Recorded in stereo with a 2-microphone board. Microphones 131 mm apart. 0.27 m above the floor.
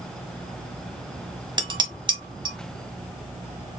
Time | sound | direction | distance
1.6 | dishes clattering | 40° right (ahead or behind) | 1.2 m